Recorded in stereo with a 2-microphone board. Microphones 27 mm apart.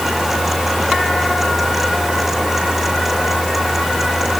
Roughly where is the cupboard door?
No cupboard door in this recording.